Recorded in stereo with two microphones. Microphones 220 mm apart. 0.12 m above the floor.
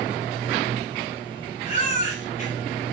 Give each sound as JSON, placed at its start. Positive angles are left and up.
{"t": 1.7, "sound": "a baby crying", "side_deg": 35, "distance_m": 5.5}